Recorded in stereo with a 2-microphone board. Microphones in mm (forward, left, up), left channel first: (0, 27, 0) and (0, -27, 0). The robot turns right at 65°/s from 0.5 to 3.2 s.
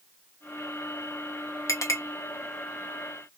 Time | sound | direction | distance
1.7 | a clink | 80° left | 0.7 m